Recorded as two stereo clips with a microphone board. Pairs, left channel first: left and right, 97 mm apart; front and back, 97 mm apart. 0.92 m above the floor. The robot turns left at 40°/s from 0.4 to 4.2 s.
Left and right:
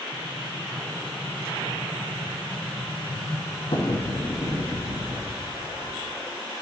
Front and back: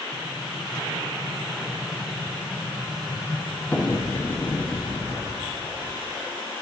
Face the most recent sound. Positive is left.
turn(degrees=60)